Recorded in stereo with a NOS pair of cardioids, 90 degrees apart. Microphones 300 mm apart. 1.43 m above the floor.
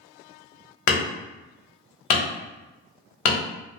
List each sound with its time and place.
0.9 s hammering: 70° left, 1.4 m